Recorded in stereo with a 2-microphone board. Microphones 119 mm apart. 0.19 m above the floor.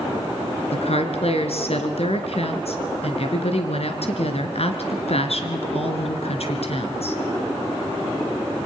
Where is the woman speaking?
65° left (ahead or behind), 2.5 m.